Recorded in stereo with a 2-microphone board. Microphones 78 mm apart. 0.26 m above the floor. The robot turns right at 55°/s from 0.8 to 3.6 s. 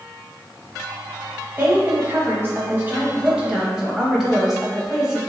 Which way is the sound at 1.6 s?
25° right (ahead or behind).